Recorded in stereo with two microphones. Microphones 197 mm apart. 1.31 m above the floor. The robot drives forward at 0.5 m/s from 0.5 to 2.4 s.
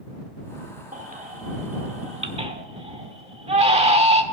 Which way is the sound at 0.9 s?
40° right (ahead or behind).